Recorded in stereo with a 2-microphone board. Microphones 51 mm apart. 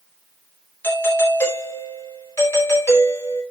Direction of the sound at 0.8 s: 50° left (ahead or behind).